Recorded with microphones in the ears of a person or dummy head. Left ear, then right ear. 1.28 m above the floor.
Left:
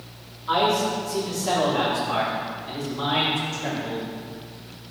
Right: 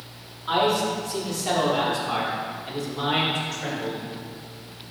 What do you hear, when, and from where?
0.5 s a man speaking: 35° right (ahead or behind), 3.5 m; by 4.0 s 70° right (ahead or behind), 7 m